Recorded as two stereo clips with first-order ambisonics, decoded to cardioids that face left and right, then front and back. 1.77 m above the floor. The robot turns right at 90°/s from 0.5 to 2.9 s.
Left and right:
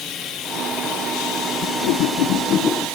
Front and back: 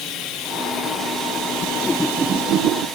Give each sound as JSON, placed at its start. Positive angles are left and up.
{"t": 0.0, "sound": "running water", "azimuth_deg": 45}
{"t": 1.6, "sound": "a whoosh", "azimuth_deg": 55}